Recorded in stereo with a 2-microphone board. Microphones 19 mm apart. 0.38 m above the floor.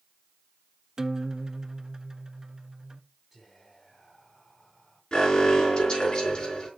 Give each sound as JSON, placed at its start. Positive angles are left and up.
{"t": 1.0, "sound": "a guitar", "side_deg": -25, "distance_m": 0.6}
{"t": 3.3, "sound": "whispering", "side_deg": 5, "distance_m": 3.0}
{"t": 5.1, "sound": "an alarm", "side_deg": 50, "distance_m": 4.5}